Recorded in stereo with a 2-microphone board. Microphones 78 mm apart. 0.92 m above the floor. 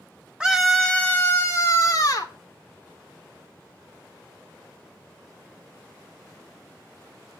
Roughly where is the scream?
Centre.